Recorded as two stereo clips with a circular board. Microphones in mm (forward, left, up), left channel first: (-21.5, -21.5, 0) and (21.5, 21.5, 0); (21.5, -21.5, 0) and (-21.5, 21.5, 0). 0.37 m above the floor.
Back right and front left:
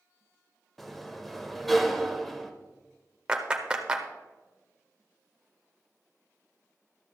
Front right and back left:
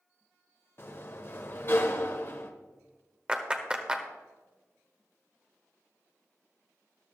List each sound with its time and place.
0.8 s a sliding door: 50° right, 1.0 m
3.3 s a clap: 95° left, 1.1 m